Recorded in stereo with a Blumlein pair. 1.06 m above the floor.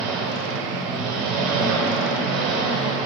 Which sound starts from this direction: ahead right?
An engine running, at 0.0 s.